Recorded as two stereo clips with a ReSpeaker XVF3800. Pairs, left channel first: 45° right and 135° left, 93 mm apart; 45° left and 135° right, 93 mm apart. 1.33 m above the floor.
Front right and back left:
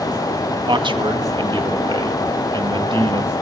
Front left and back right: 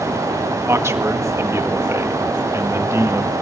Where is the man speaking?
165° left, 1.8 m.